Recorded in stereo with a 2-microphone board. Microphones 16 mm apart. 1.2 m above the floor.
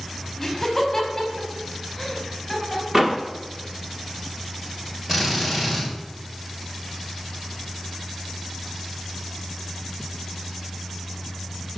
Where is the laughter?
10° left (ahead or behind), 4.5 m; by 2.8 s 5° left (ahead or behind), 6.5 m.